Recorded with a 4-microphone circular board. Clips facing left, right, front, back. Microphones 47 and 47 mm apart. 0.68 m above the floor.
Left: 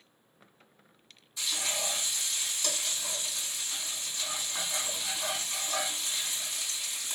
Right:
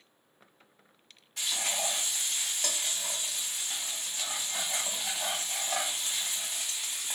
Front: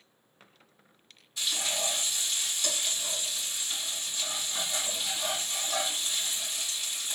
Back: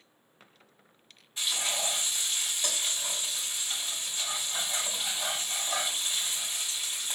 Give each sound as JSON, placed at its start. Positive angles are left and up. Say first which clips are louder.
{"t": 1.4, "sound": "frying", "louder": "right 1 dB, even", "azimuth_deg": -115, "distance_m": 2.5}